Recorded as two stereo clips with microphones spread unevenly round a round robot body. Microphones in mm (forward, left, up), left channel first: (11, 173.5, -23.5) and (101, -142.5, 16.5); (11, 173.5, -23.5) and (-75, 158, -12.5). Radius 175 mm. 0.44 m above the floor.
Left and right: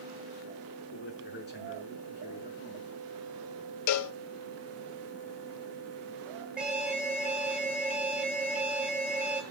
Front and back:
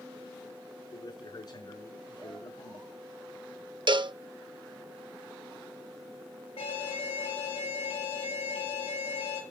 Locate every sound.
0.9 s a man speaking: 50° left, 6 m; by 2.9 s 45° left, 6.5 m
3.9 s a cowbell: 150° left, 0.7 m
6.6 s an alarm: 10° left, 7.5 m